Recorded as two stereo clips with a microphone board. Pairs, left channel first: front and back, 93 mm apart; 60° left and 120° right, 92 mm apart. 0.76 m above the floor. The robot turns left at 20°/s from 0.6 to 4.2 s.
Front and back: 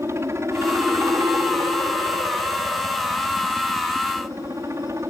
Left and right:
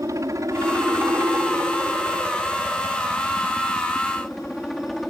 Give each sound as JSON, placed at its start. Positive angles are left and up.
{"t": 0.0, "sound": "a helicopter", "azimuth_deg": -140}